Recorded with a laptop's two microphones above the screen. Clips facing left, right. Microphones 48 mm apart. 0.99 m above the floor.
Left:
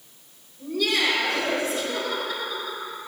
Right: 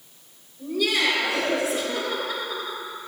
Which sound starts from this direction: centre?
Laughter, at 0.6 s.